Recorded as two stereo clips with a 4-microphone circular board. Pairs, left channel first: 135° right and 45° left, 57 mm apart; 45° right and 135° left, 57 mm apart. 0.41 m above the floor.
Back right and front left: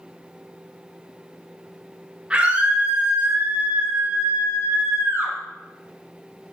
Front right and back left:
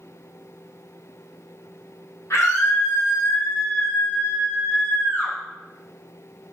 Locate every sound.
2.3 s a scream: 20° right, 5 m; by 5.3 s 5° left, 7 m